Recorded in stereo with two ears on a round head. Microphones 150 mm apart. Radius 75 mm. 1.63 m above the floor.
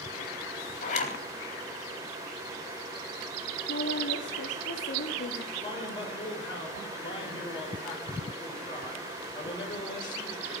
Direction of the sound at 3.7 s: 75° left (ahead or behind).